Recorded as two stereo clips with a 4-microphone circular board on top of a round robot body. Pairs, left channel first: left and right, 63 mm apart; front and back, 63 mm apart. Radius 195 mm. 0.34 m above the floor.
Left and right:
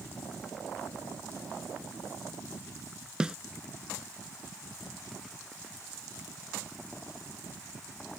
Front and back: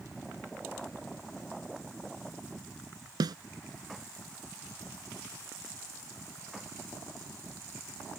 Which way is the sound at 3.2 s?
165° right.